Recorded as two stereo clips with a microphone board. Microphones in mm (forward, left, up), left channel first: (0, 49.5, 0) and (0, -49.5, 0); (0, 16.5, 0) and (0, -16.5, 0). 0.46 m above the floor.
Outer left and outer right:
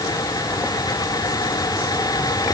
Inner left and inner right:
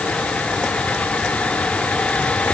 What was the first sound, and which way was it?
Only background noise.